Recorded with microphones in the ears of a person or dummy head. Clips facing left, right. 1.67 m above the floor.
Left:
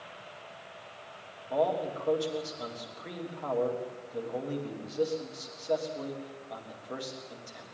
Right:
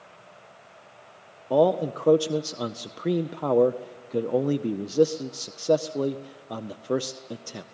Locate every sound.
1.5 s a man speaking: 65° right (ahead or behind), 0.7 m